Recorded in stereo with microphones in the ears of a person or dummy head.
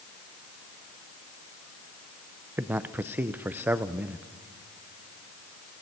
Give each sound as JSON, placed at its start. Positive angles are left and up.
{"t": 2.6, "sound": "a man speaking", "side_deg": -15, "distance_m": 0.7}